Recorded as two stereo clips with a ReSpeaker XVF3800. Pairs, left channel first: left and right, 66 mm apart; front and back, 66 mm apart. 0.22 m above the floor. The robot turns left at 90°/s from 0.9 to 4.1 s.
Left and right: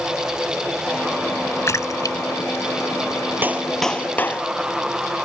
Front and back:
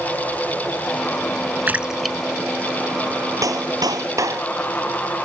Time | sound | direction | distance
1.7 | a splash | 125° left | ?
3.4 | a clap | 150° right | ?